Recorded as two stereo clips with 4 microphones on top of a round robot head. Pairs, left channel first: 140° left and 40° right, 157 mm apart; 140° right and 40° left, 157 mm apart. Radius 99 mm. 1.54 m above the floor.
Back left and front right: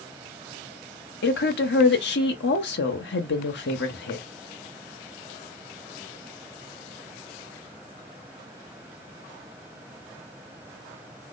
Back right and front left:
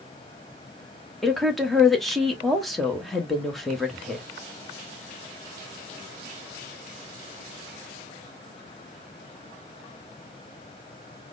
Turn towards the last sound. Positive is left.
turn(degrees=130)